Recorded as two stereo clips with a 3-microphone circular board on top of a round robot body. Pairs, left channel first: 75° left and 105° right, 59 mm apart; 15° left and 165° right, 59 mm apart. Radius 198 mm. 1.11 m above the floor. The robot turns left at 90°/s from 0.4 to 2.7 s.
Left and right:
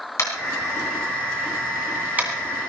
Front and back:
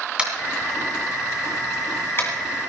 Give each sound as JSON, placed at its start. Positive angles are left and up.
{"t": 0.2, "sound": "tapping", "azimuth_deg": 120, "distance_m": 2.5}